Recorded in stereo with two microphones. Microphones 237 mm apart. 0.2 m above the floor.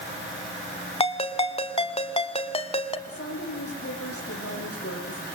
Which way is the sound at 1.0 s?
25° left (ahead or behind).